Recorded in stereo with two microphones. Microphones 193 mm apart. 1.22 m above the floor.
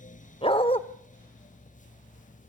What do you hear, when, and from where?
0.4 s a dog barking: 30° left (ahead or behind), 1.1 m